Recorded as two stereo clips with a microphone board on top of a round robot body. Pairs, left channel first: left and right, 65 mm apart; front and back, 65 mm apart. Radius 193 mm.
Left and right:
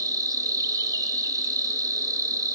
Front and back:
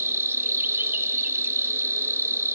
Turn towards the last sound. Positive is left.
turn(degrees=-125)